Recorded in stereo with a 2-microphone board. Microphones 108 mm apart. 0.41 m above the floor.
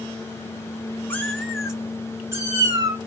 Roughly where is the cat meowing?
Centre.